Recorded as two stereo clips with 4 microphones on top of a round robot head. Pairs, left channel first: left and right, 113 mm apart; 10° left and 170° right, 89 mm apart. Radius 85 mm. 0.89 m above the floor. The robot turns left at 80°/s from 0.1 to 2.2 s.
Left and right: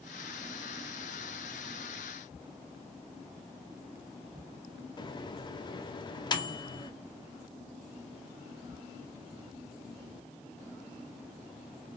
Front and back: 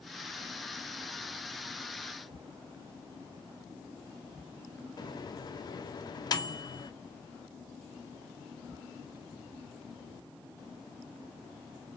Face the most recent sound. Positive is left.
turn(degrees=45)